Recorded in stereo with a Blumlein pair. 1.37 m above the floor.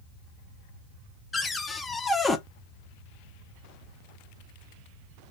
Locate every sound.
1.3 s a cupboard door: 10° left, 0.5 m